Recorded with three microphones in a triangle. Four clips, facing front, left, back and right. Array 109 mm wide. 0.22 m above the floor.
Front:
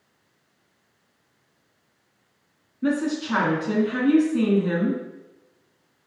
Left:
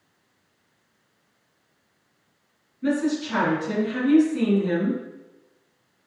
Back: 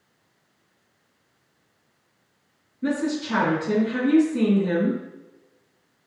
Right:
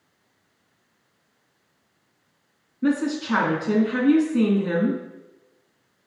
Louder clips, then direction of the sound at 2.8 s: Right 1 dB, front 1 dB; 65° right.